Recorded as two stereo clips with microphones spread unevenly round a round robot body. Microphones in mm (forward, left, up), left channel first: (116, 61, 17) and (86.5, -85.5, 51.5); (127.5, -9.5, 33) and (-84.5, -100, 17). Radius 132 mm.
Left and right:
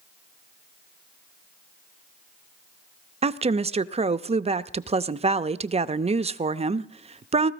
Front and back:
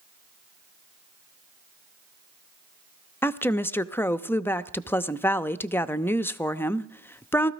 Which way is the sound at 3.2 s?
60° right.